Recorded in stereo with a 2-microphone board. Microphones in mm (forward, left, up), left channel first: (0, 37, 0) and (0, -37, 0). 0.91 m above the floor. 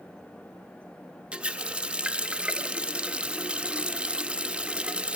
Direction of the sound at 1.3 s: 15° right (ahead or behind).